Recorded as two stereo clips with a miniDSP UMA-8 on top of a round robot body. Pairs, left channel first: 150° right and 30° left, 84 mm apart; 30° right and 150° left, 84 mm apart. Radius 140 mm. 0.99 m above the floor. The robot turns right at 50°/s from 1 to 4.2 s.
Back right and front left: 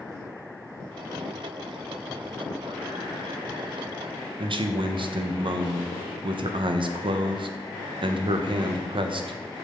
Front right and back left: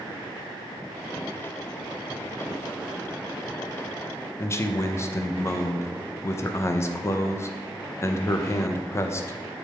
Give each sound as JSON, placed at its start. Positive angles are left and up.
{"t": 4.4, "sound": "a man speaking", "azimuth_deg": 25, "distance_m": 0.9}